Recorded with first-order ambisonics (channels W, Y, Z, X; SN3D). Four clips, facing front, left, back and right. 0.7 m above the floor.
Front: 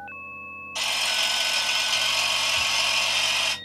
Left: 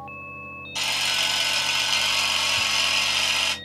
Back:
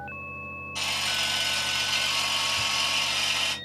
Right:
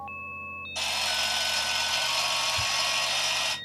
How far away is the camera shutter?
About 2.5 m.